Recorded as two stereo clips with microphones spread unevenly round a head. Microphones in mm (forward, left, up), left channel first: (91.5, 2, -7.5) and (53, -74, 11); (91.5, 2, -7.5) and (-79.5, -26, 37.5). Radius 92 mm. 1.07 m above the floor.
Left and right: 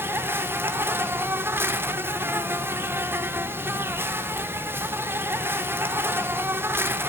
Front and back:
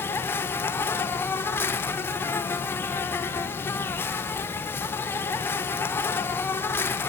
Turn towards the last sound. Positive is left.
turn(degrees=-45)